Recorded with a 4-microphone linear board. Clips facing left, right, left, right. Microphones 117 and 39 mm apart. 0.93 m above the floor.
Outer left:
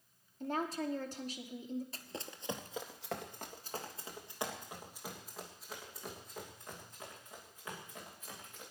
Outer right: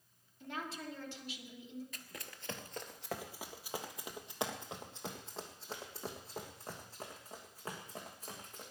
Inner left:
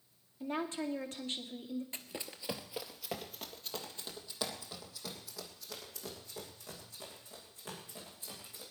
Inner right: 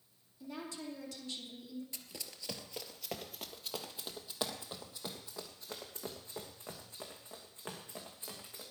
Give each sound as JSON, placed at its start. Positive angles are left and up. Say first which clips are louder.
{"t": 0.4, "sound": "a woman speaking", "louder": "outer left 7 dB, inner left 7 dB", "side_deg": 40, "distance_m": 2.5}
{"t": 1.9, "sound": "running footsteps", "louder": "outer left 5 dB, inner left 4 dB", "side_deg": 35, "distance_m": 1.2}